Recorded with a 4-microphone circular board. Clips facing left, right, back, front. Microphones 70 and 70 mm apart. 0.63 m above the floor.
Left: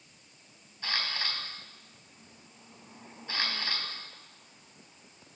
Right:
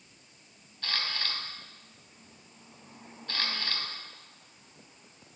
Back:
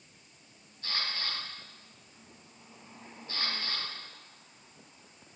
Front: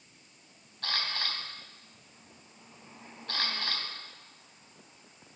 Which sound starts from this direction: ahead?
A camera shutter, at 0.8 s.